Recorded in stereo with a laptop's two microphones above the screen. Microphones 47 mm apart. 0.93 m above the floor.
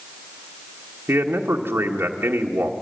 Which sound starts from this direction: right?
A man speaking, at 1.1 s.